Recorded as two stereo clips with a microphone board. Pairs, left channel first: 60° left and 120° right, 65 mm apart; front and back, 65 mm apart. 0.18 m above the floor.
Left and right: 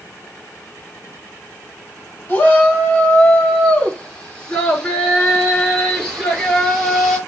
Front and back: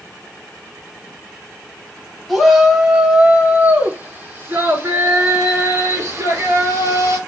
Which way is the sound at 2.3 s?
105° left.